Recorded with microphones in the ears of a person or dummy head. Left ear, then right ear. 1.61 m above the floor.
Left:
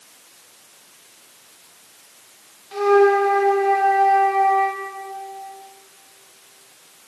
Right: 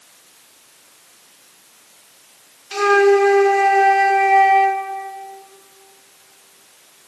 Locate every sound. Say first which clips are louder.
2.7 s a flute: right 2 dB; 75° right (ahead or behind), 2 m